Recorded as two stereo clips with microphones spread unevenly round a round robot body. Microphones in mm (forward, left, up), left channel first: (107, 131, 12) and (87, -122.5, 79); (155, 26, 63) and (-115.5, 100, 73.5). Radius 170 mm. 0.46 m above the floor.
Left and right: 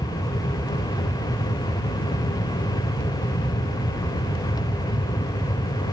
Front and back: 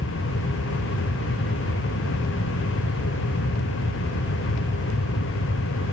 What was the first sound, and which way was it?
Only background noise.